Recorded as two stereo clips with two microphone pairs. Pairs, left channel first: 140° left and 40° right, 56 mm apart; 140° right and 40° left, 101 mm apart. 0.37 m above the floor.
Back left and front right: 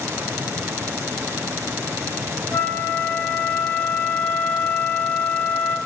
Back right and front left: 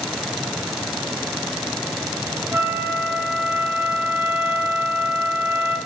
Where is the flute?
95° left, 1.1 m.